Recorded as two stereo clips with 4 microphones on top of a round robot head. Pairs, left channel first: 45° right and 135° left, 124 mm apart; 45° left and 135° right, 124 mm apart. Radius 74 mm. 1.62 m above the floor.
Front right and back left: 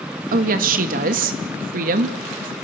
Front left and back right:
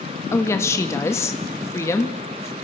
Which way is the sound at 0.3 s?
115° left.